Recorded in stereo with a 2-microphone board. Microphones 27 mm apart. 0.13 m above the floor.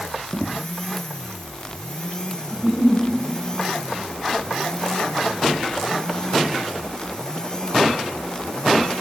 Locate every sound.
2.5 s a giggle: 35° left (ahead or behind), 8.5 m